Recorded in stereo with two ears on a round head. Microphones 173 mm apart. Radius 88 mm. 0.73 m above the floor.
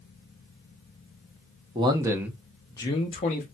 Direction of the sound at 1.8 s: 25° right (ahead or behind).